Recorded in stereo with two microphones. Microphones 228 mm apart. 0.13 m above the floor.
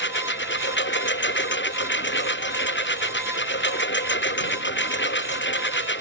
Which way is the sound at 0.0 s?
55° left (ahead or behind).